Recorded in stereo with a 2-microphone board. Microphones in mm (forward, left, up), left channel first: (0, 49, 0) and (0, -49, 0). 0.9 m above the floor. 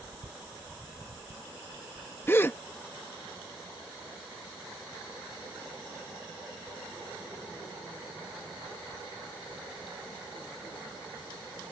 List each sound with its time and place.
2.3 s a gasp: 25° left (ahead or behind)